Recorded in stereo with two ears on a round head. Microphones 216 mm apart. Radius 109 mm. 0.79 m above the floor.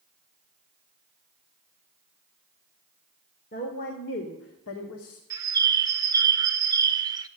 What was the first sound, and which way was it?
A woman speaking, 40° left (ahead or behind).